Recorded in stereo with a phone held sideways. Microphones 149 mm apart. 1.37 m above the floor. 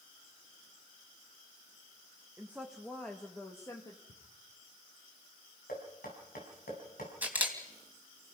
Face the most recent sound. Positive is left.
turn(degrees=-10)  # may be behind; listen again after turning